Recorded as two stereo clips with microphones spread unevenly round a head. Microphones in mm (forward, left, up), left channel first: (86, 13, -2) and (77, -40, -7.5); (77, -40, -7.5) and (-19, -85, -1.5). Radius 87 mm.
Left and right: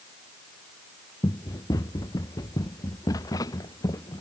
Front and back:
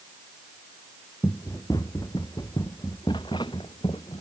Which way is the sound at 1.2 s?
100° left.